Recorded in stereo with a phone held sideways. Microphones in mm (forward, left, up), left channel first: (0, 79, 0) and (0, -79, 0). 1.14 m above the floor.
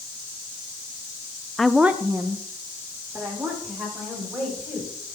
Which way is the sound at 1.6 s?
5° left (ahead or behind).